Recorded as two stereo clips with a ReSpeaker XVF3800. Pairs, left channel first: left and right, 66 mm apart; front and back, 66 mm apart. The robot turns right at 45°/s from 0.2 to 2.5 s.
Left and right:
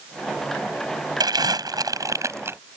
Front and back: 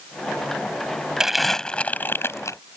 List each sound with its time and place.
1.2 s crumpling: 100° right; by 2.6 s 40° right